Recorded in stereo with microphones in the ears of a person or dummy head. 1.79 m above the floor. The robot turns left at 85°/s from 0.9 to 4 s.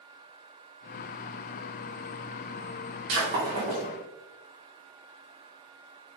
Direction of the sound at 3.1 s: 70° right (ahead or behind).